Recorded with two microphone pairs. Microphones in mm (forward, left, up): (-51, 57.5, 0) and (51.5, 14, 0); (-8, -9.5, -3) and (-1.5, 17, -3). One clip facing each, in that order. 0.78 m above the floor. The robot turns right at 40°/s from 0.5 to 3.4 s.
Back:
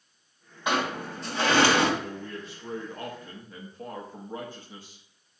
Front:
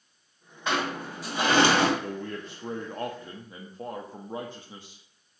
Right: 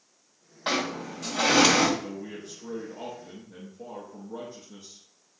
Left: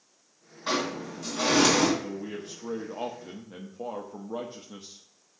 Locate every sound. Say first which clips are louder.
0.7 s a sliding door: back 1 dB, right 1 dB; 130° right, 2.0 m; by 1.9 s 80° right, 2.0 m
2.0 s a man speaking: front 3 dB, left 2 dB; 10° right, 1.0 m; by 5.0 s 45° left, 1.0 m